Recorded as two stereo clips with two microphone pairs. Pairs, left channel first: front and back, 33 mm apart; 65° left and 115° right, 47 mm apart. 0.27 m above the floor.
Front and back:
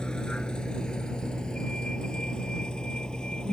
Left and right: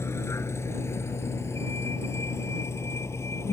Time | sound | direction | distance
0.0 | a vehicle | 65° left | ?